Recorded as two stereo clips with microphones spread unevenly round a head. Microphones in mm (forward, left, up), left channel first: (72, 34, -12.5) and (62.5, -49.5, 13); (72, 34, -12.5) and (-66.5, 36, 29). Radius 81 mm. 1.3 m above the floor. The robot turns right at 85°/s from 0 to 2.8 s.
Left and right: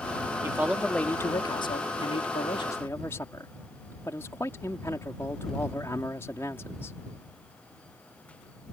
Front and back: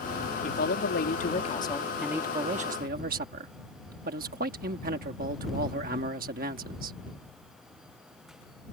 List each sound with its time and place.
0.4 s a man speaking: 45° right; by 7.0 s 160° left